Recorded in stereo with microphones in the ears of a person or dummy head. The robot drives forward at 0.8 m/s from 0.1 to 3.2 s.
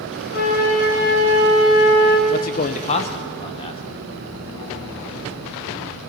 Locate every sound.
0.3 s a flute: 60° left (ahead or behind), 4 m; by 2.2 s 80° left, 3.5 m
2.3 s a man speaking: 45° left (ahead or behind), 0.7 m; by 3.8 s 25° left (ahead or behind), 1.1 m